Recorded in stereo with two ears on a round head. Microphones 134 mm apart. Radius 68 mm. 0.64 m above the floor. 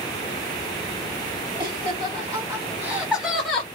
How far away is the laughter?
About 2.0 m.